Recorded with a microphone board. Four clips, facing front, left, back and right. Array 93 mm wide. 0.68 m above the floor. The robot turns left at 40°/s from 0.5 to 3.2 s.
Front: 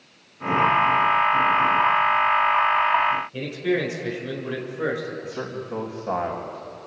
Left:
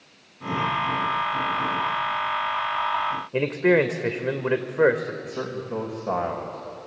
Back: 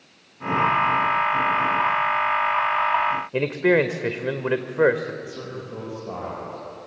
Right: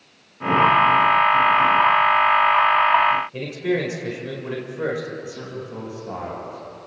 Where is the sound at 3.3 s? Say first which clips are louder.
Left 4 dB, back 5 dB; 140° left, 2 m.